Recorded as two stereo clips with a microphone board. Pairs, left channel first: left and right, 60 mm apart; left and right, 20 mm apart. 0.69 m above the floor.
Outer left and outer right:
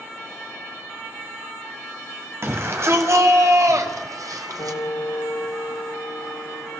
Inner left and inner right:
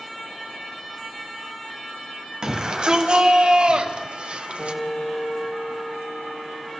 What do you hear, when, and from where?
2.4 s a shout: 45° right (ahead or behind), 3.5 m; by 4.8 s 75° right (ahead or behind), 2 m
4.6 s a piano: 80° left, 3 m